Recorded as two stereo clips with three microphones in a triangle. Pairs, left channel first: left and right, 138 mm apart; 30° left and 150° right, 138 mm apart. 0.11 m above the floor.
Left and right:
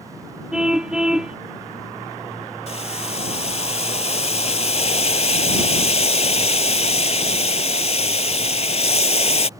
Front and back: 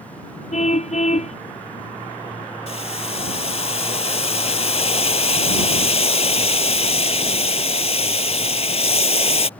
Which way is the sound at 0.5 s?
5° right.